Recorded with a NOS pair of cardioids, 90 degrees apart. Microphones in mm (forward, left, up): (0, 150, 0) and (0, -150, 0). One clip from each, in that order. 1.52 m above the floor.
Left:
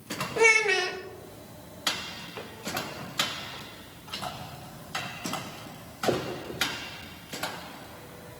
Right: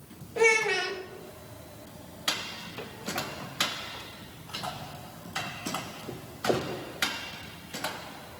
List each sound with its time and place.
0.4 s a child speaking: 15° left, 0.9 m